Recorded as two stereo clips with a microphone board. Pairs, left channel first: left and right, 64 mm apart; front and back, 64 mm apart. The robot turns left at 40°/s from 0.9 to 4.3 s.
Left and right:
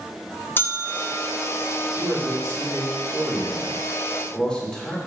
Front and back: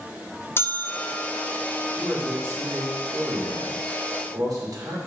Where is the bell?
45° left, 0.6 m; by 1.3 s 30° left, 0.6 m.